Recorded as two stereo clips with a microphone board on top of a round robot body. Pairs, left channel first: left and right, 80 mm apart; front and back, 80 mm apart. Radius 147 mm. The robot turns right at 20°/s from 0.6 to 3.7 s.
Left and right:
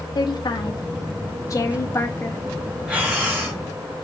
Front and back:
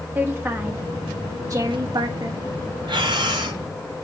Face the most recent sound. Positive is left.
turn(degrees=-150)